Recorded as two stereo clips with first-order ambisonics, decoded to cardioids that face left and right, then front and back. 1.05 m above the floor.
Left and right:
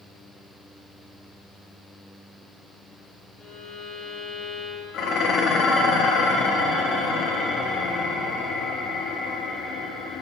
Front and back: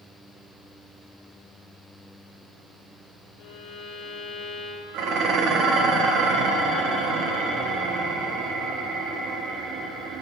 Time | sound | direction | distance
3.4 | a violin | 45° left | 1.6 m
4.9 | dishes clattering | 135° left | 0.8 m